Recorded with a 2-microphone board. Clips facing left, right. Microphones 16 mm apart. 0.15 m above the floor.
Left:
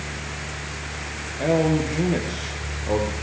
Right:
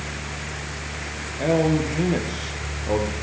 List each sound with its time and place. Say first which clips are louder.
1.4 s a man speaking: even; 5° right (ahead or behind), 4 m